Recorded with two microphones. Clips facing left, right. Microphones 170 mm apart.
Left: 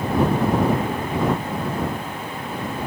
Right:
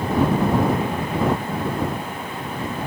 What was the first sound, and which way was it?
Only background noise.